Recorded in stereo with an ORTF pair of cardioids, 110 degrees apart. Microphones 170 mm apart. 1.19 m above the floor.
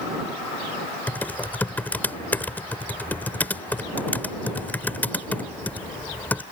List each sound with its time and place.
1.1 s typing on a keyboard: 10° left